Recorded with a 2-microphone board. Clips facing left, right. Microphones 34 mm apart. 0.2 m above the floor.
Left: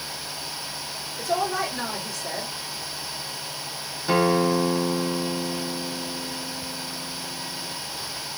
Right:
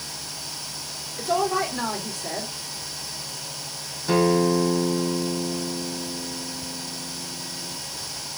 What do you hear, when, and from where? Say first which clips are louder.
1.2 s a woman speaking: right 2 dB; 40° right (ahead or behind), 1.4 m
4.1 s a guitar: right 1 dB; 10° left (ahead or behind), 0.6 m